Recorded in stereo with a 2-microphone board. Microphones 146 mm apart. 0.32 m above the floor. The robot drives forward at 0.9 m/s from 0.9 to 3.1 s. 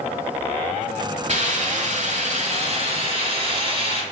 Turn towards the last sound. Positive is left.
turn(degrees=-40)  # may be behind; listen again after turning